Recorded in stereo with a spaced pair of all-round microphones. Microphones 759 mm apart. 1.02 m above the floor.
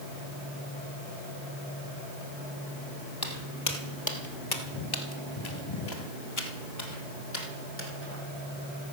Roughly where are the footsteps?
Left.